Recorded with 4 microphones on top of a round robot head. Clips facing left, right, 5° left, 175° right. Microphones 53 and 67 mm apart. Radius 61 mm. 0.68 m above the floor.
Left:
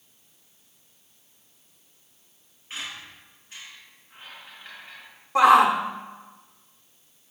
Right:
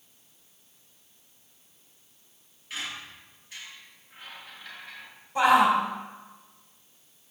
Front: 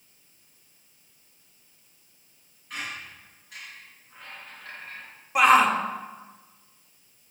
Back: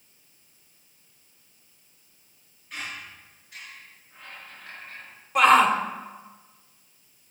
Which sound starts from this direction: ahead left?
A squeak, at 2.7 s.